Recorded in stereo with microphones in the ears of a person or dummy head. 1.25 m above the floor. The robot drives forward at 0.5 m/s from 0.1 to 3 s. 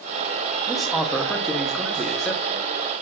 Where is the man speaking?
Centre (ahead or behind), 2.0 m.